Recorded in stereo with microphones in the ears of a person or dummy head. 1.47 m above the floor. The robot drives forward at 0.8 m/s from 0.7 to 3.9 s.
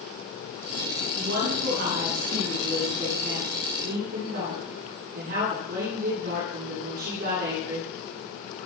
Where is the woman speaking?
60° right (ahead or behind), 9 m; by 7.9 s 50° right (ahead or behind), 10 m.